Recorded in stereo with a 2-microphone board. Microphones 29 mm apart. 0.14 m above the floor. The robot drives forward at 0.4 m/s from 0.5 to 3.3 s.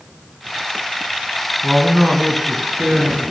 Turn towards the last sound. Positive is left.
turn(degrees=-15)  # may be behind; listen again after turning